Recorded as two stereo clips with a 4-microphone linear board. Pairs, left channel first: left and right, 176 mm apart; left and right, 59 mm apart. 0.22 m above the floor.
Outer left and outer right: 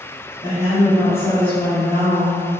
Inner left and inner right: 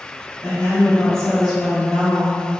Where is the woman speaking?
25° left (ahead or behind), 1.6 m; by 2.4 s 5° right (ahead or behind), 1.6 m.